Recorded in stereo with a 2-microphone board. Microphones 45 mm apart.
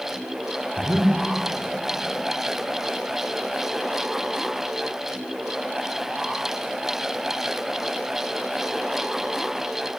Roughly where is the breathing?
Right.